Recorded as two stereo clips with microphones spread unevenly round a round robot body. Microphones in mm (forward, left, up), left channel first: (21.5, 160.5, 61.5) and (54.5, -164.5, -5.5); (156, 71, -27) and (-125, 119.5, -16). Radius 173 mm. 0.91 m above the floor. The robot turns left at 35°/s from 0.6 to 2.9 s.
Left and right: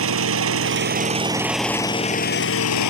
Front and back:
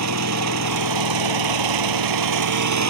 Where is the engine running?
140° right; by 2.9 s 140° left.